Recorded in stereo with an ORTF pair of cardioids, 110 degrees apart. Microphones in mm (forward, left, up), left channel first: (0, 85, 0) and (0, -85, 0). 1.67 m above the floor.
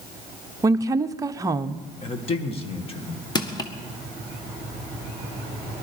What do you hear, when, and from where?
0.6 s a woman speaking: 20° right, 0.7 m
2.0 s a man speaking: 35° left, 1.9 m
3.4 s crushing: 25° left, 1.6 m